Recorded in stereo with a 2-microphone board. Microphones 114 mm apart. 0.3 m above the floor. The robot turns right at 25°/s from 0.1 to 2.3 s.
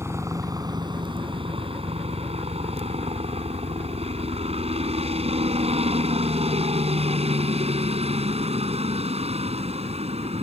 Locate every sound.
0.0 s a helicopter: 25° right (ahead or behind); by 10.4 s 65° right (ahead or behind)